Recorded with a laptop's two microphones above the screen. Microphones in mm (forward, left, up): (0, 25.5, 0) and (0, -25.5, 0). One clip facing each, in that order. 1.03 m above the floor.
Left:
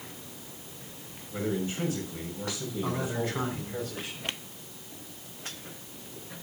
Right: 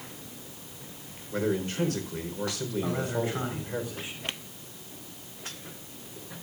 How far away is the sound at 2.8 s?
About 4.5 m.